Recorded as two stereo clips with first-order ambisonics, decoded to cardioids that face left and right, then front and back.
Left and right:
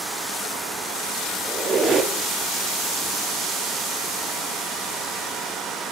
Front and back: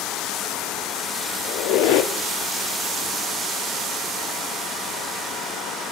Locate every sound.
1.4 s a squeak: 20° right, 0.7 m